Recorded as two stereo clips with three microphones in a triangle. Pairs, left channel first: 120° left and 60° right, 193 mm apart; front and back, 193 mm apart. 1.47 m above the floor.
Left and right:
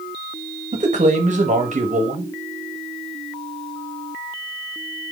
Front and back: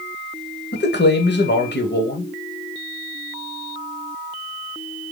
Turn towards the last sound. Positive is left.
turn(degrees=-15)